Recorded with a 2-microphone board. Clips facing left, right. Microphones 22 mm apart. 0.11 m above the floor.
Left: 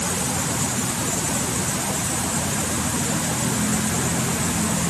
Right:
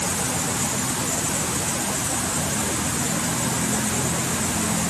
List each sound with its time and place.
Only background noise.